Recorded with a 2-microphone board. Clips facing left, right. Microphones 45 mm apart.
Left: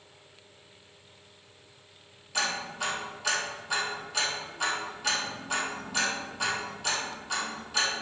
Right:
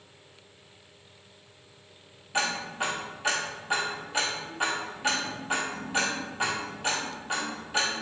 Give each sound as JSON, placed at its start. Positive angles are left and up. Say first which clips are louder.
{"t": 2.3, "sound": "ticking", "louder": "right 2 dB", "side_deg": -30, "distance_m": 1.4}